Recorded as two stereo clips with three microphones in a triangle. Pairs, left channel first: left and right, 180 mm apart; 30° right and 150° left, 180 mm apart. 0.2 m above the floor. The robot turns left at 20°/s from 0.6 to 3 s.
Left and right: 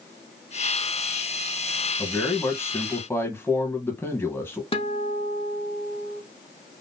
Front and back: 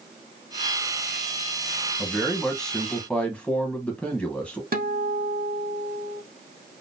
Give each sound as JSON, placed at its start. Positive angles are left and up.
{"t": 2.0, "sound": "a man speaking", "azimuth_deg": 60, "distance_m": 1.2}
{"t": 4.7, "sound": "a guitar", "azimuth_deg": 135, "distance_m": 0.7}